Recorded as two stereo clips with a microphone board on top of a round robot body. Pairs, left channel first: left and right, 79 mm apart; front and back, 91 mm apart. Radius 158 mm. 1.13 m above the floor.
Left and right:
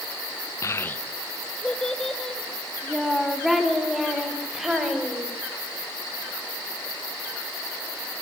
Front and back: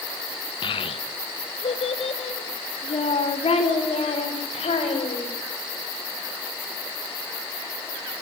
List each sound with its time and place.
0.6 s a child speaking: 35° left, 0.6 m; by 5.3 s 5° right, 5 m